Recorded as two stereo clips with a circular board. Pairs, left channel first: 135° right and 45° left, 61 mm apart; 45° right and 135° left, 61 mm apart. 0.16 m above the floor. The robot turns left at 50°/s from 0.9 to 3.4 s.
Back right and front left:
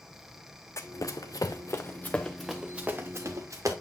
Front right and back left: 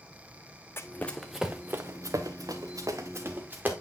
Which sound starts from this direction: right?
Running footsteps, at 0.8 s.